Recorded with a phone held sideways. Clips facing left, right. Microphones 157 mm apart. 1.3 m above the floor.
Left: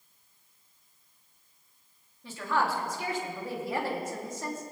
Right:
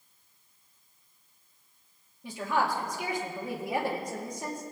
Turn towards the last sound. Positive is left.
turn(degrees=-15)  # may be behind; listen again after turning